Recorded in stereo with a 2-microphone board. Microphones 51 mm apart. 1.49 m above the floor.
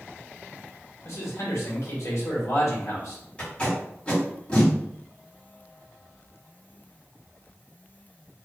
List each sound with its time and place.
1.1 s a man speaking: 75° left (ahead or behind), 1.2 m
3.4 s tape being pulled: 25° left (ahead or behind), 1.7 m